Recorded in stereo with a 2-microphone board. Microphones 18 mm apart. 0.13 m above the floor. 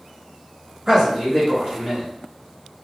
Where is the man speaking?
25° right (ahead or behind), 1.5 m.